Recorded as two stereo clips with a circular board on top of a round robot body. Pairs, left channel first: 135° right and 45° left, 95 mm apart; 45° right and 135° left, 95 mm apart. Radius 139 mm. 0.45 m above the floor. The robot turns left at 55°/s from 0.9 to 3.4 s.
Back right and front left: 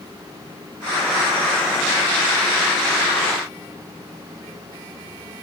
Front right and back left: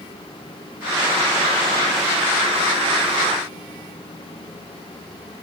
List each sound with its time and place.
Only background noise.